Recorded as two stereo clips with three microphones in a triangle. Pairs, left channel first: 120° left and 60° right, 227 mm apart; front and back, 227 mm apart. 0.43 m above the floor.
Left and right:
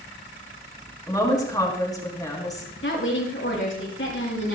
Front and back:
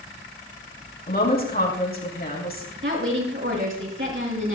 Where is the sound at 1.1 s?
45° left, 4 m.